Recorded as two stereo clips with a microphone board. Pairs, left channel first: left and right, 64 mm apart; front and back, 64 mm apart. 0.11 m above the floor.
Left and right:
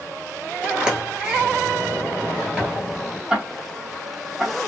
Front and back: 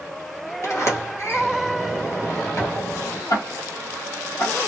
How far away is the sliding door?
About 1.3 m.